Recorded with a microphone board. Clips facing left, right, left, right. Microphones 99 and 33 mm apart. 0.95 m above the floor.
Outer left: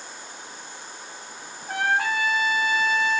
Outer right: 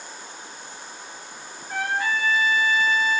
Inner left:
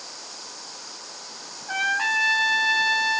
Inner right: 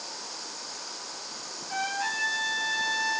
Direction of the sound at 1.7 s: 70° left (ahead or behind).